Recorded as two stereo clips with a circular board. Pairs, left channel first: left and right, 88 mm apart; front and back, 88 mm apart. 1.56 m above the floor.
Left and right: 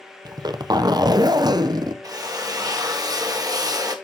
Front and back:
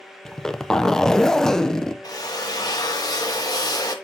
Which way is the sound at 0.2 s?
85° right.